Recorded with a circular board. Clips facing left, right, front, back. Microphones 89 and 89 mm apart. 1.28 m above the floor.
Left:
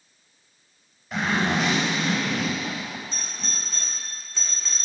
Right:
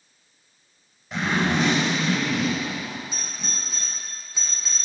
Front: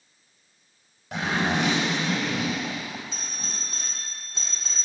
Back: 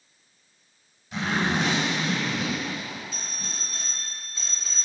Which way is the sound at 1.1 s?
5° left.